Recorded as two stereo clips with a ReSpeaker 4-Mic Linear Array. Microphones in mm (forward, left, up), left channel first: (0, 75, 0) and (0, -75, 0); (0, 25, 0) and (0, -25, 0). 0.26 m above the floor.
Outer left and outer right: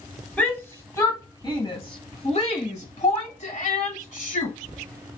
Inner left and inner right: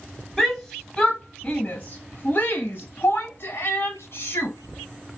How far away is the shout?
About 1.3 m.